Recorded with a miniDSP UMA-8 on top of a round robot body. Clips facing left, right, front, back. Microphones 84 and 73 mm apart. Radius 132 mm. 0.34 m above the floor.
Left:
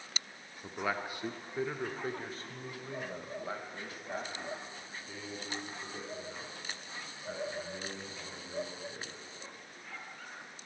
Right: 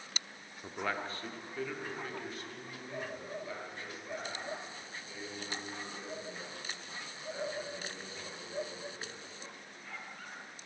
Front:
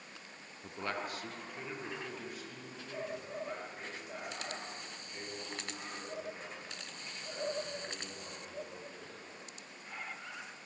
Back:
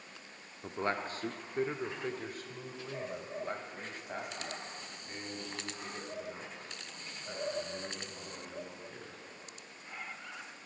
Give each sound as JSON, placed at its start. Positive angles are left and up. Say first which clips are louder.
{"t": 0.6, "sound": "a man speaking", "louder": "left 1 dB, back 4 dB", "azimuth_deg": -175, "distance_m": 0.8}